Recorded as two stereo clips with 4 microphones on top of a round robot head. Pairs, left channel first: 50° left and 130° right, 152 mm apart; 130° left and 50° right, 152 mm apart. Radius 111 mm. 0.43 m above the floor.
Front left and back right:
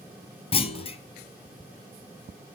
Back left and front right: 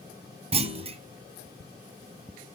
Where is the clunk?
Straight ahead, 1.6 m.